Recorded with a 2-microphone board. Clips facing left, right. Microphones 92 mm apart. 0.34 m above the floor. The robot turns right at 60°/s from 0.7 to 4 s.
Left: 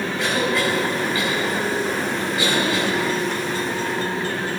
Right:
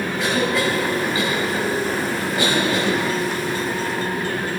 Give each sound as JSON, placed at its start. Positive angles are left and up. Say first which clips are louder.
{"t": 0.2, "sound": "a cough", "louder": "right 1 dB", "side_deg": 0, "distance_m": 2.5}